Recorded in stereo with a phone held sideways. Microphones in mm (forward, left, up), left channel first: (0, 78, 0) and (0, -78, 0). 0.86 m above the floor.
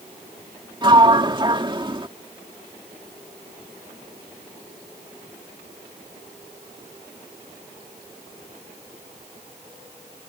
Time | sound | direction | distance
0.8 | a sliding door | 30° right (ahead or behind) | ?